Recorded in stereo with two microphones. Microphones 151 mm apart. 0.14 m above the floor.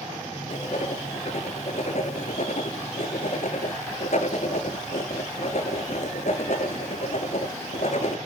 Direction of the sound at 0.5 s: 60° left (ahead or behind).